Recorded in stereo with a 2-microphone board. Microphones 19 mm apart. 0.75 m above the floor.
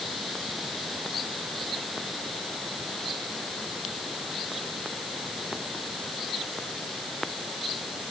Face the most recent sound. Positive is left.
No sound to turn to.